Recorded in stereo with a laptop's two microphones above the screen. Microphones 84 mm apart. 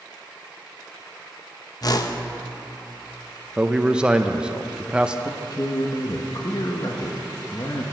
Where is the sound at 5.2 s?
50° left (ahead or behind), 0.8 m.